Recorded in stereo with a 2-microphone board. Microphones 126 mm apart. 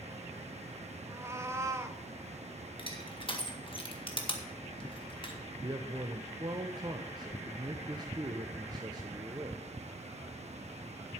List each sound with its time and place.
1.1 s a cat meowing: 20° right (ahead or behind), 0.9 m
2.8 s crushing: 40° left (ahead or behind), 1.7 m
5.6 s a man speaking: 35° right (ahead or behind), 0.9 m